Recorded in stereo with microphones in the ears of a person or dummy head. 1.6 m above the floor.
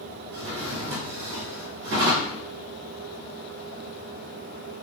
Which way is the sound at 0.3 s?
45° right (ahead or behind).